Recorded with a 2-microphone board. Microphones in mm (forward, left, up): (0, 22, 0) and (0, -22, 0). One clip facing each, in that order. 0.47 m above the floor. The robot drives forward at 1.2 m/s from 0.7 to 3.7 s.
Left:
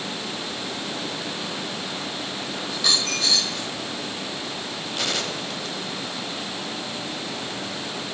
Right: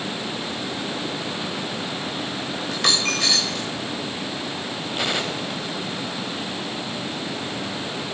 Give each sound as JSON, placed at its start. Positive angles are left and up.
{"t": 2.7, "sound": "a dropped coin", "side_deg": -50, "distance_m": 2.5}
{"t": 5.0, "sound": "a gunshot", "side_deg": -15, "distance_m": 1.0}